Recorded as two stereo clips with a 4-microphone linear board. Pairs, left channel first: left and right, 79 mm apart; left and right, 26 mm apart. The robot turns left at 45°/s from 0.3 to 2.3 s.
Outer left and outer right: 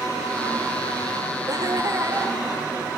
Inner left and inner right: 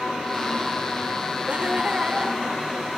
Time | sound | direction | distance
1.5 | laughter | 110° right | 2 m